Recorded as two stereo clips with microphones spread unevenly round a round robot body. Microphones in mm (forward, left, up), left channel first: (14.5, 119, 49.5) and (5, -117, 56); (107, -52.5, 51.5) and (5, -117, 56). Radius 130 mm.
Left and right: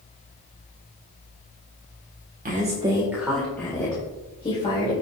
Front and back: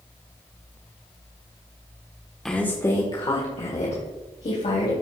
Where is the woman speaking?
50° right, 1.6 m; by 4.9 s 25° left, 3.5 m.